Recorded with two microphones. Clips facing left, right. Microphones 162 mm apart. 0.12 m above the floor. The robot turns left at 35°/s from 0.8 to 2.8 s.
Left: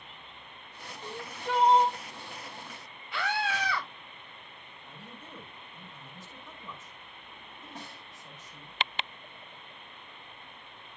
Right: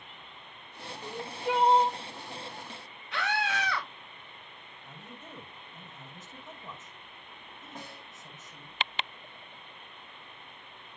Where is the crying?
Straight ahead, 2.5 m; by 2.0 s 30° right, 2.5 m.